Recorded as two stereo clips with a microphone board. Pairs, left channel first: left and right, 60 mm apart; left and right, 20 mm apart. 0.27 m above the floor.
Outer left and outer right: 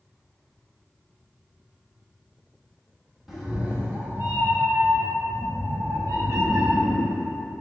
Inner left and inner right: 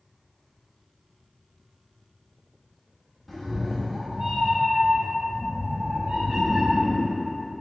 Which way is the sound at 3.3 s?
5° right (ahead or behind).